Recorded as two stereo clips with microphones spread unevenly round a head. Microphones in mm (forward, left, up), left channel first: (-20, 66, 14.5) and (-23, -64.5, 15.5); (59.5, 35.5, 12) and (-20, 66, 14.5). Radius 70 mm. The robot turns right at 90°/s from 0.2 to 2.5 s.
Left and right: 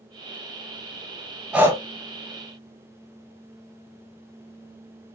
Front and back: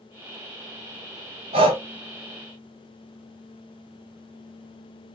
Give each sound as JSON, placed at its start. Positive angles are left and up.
{"t": 1.5, "sound": "breathing", "azimuth_deg": -175, "distance_m": 0.7}